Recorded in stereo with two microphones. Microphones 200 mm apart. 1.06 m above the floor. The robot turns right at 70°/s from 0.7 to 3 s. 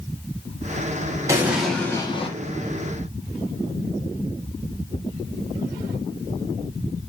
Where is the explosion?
25° right, 0.9 m; by 2.3 s 50° left, 0.9 m.